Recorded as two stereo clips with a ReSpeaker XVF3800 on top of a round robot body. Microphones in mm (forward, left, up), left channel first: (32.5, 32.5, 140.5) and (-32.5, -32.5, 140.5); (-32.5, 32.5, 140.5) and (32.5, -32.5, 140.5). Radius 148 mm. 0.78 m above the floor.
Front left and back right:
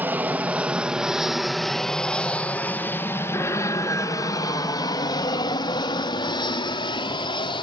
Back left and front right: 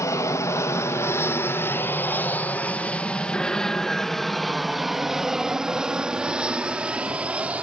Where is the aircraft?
165° left; by 7.6 s 30° left.